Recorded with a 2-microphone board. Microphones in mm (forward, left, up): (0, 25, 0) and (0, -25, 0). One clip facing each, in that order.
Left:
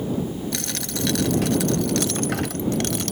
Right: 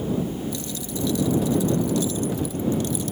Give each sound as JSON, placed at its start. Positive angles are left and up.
{"t": 0.5, "sound": "a dropped coin", "side_deg": 75}